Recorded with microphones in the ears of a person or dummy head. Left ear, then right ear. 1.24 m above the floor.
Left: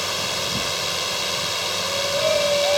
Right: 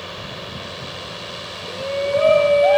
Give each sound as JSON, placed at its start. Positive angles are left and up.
{"t": 0.0, "sound": "a drone", "side_deg": 80}
{"t": 1.7, "sound": "a shout", "side_deg": -40}